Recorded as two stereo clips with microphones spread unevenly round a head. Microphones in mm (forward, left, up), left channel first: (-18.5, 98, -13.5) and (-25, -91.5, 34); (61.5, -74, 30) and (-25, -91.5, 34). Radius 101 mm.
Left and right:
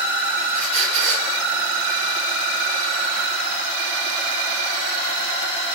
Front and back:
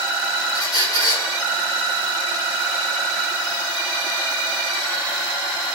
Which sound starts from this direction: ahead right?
A squeak, at 0.5 s.